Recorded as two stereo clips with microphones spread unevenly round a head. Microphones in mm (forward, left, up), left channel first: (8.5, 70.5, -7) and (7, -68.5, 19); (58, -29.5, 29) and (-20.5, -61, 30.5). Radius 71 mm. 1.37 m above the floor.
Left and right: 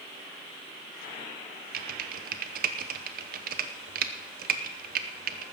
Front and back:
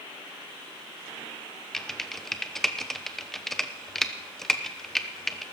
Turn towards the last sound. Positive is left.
turn(degrees=-65)